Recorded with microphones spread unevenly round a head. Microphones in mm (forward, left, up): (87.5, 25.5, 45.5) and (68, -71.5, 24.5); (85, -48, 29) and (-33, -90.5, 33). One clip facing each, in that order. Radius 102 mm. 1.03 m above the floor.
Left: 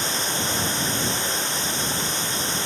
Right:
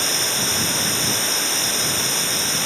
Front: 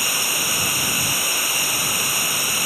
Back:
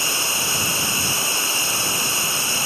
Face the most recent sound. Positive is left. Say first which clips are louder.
# right 1 dB, back 1 dB
turn(degrees=-95)